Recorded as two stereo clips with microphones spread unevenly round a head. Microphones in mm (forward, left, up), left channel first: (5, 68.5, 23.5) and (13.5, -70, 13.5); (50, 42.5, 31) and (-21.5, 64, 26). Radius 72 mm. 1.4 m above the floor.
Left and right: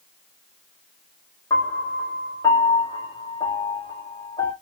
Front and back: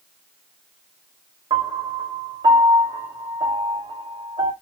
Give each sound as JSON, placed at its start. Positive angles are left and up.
{"t": 1.5, "sound": "a piano", "azimuth_deg": 155, "distance_m": 1.7}